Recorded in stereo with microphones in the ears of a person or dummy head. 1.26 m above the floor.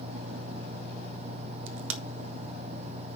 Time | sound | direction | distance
1.7 | a crack | 75° right (ahead or behind) | 1.7 m